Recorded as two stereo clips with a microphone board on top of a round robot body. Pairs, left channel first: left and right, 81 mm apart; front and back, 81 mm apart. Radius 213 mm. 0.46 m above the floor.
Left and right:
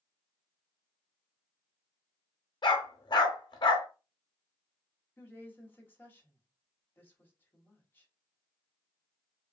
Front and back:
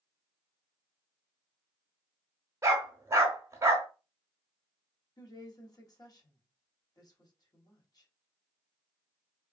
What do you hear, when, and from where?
2.6 s a dog barking: 125° left, 0.7 m
5.2 s a woman speaking: 25° left, 1.5 m